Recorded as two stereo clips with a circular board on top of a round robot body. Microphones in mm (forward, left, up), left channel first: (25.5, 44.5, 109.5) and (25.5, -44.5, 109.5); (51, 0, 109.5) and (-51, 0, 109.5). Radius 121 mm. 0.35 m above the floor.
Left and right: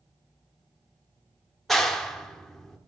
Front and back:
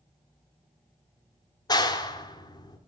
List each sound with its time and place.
1.7 s a clap: 5° left, 1.2 m